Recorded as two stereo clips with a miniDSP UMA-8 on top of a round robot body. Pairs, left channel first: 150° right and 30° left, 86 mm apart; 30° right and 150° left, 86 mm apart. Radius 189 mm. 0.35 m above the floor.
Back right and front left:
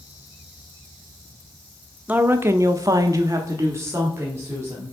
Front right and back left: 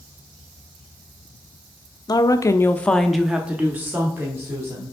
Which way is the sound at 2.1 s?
35° right.